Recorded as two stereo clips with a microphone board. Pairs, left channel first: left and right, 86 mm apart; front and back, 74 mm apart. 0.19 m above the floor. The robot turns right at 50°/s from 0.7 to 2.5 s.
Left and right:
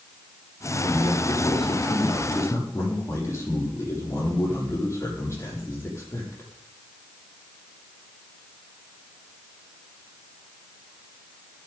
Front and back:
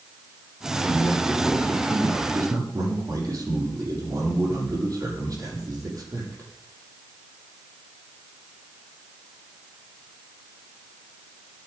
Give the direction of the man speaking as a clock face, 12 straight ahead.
10 o'clock.